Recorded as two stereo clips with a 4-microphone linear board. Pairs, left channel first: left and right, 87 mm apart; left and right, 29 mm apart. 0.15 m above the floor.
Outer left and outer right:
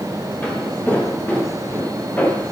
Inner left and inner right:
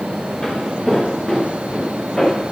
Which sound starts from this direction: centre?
Footsteps, at 0.4 s.